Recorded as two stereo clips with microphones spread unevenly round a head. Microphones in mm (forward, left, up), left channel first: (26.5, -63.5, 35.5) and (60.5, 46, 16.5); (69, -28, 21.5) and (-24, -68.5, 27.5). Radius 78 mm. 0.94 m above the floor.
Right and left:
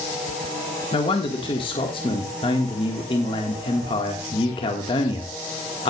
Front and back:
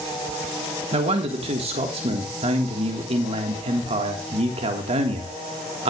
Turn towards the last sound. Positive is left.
turn(degrees=-160)